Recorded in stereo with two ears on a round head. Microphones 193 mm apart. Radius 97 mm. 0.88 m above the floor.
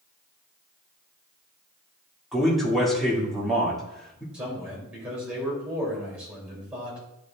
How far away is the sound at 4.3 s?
About 3.5 m.